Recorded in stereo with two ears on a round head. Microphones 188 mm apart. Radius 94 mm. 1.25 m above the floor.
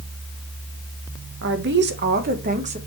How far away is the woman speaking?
About 1.4 m.